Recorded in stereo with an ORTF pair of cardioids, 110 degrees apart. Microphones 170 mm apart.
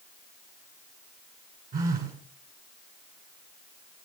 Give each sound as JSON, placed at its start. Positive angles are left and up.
{"t": 1.7, "sound": "a phone buzzing", "azimuth_deg": -55, "distance_m": 6.0}